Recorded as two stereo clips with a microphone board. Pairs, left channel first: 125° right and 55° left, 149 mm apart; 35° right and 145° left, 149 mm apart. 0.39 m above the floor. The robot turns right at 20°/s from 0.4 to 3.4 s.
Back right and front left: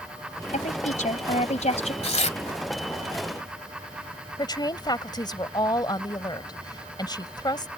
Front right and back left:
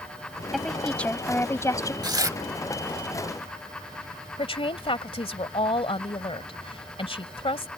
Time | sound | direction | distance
0.5 | a woman speaking | 125° right | ?
2.0 | tearing paper | 155° right | ?
4.4 | a woman speaking | 75° right | ?